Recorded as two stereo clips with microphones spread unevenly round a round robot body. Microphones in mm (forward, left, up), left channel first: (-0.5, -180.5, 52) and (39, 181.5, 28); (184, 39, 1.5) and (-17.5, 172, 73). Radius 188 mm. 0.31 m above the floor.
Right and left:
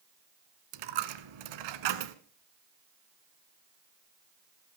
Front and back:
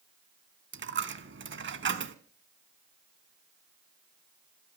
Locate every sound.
0.7 s a dropped coin: 100° left, 1.4 m